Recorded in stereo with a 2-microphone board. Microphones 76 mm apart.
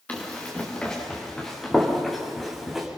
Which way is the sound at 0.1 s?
20° left (ahead or behind).